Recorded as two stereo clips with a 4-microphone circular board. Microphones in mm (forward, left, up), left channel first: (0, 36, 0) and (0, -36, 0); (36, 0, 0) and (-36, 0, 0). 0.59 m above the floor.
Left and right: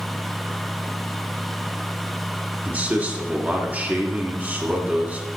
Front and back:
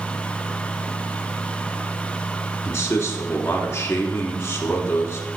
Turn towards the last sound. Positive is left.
turn(degrees=-35)